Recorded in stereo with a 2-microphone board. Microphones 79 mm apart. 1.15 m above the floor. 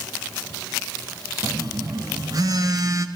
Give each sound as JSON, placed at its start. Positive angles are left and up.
{"t": 1.4, "sound": "a phone buzzing", "side_deg": -50, "distance_m": 0.5}